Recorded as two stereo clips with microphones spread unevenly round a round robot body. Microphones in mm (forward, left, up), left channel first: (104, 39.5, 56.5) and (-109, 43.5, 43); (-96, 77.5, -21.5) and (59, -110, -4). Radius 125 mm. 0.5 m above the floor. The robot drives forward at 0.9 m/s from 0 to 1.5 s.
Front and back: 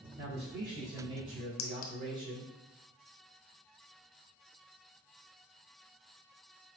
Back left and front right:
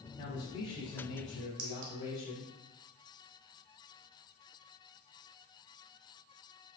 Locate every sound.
0.2 s a man speaking: 170° right, 1.9 m; by 2.5 s 175° right, 3 m
1.6 s a clink: 5° right, 0.7 m